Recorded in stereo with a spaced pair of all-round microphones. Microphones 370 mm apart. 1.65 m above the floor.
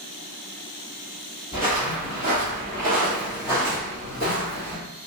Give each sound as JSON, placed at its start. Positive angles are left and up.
{"t": 1.5, "sound": "footsteps", "side_deg": 25, "distance_m": 1.9}